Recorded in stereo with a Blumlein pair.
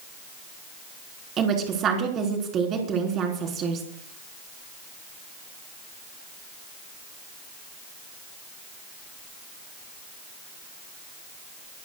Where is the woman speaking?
30° right, 3.5 m.